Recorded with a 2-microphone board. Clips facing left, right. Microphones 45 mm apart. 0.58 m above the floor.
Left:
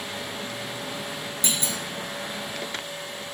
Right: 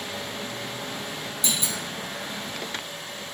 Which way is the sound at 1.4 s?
50° left (ahead or behind).